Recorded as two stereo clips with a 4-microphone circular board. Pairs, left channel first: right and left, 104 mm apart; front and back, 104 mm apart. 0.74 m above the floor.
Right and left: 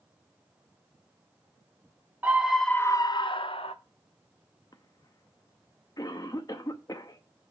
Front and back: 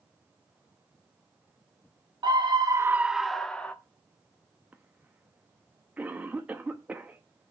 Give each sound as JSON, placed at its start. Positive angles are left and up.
{"t": 2.2, "sound": "a scream", "azimuth_deg": 155, "distance_m": 0.6}
{"t": 4.7, "sound": "a cough", "azimuth_deg": -115, "distance_m": 0.8}